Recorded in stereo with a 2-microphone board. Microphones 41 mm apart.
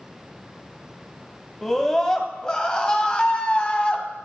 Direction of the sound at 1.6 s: 10° left (ahead or behind).